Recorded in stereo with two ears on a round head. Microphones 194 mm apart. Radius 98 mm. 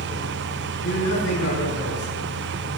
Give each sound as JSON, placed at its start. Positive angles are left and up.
{"t": 0.8, "sound": "a man speaking", "side_deg": 55, "distance_m": 6.0}